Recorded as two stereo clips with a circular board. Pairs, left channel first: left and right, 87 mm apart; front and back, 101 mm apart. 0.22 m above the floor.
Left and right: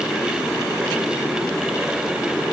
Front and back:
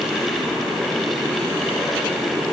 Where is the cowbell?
No cowbell in this recording.